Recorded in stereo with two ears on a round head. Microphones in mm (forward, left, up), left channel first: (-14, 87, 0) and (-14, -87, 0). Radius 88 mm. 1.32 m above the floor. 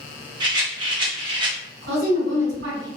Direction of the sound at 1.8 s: 70° right (ahead or behind).